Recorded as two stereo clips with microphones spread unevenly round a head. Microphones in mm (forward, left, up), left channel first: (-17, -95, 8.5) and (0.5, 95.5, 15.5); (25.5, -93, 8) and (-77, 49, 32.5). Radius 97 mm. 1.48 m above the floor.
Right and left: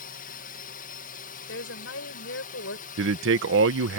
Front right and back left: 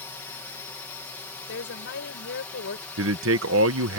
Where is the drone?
125° right; by 4.0 s 130° right.